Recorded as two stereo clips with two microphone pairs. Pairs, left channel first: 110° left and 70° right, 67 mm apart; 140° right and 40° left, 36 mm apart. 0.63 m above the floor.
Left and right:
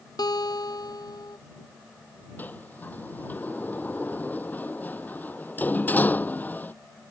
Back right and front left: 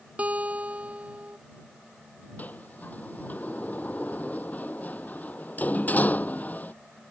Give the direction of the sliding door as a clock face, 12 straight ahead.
6 o'clock.